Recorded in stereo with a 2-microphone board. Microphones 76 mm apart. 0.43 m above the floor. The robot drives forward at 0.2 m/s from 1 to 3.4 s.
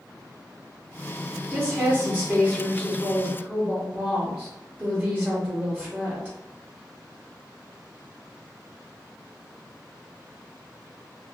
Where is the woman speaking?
20° right (ahead or behind), 0.9 m.